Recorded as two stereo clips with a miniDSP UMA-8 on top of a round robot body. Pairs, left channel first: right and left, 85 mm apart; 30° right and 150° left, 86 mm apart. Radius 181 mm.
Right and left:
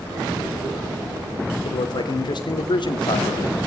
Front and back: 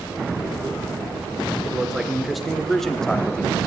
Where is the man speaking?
125° right, 3.5 m; by 3.6 s 105° right, 2.0 m.